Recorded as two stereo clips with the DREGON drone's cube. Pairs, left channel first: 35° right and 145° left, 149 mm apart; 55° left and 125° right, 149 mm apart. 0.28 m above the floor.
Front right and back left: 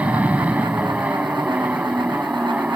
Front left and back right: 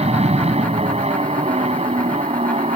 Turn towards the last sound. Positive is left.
turn(degrees=-135)